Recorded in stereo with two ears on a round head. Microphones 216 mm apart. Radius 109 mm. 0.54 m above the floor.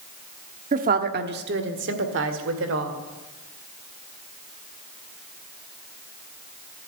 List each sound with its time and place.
0.7 s a woman speaking: 30° right (ahead or behind), 1.0 m; by 3.0 s 55° right (ahead or behind), 2 m